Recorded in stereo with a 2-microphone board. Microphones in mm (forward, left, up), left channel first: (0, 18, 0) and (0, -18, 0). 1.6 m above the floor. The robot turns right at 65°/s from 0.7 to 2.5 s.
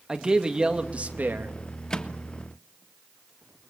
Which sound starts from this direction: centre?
A microwave, at 1.9 s.